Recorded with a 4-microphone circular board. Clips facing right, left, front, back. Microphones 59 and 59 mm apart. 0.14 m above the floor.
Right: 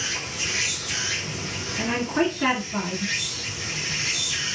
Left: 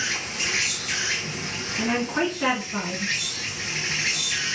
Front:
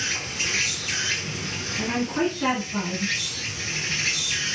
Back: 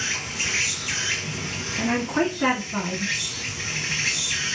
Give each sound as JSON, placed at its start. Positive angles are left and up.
{"t": 0.0, "sound": "an insect", "azimuth_deg": 105, "distance_m": 1.6}
{"t": 1.8, "sound": "a woman speaking", "azimuth_deg": 160, "distance_m": 1.4}